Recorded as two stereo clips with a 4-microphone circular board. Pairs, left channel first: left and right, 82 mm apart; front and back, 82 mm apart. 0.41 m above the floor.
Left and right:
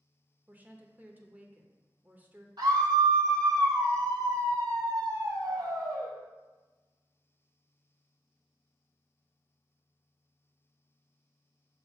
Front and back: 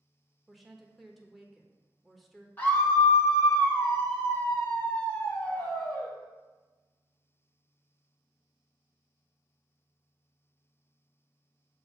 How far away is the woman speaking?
About 0.9 m.